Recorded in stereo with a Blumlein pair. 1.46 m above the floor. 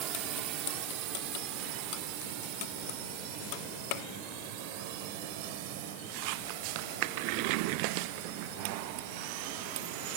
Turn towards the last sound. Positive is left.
turn(degrees=-50)